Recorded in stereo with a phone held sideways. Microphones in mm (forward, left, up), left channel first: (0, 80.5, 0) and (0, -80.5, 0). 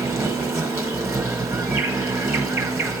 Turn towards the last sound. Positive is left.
turn(degrees=-15)  # may be behind; listen again after turning